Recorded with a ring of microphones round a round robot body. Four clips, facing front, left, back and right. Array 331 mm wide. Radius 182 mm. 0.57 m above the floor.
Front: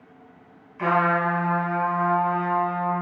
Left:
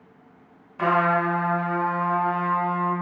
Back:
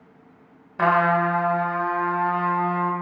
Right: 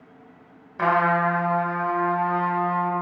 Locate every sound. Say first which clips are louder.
0.8 s a trumpet: right 1 dB, back 2 dB; 165° right, 2 m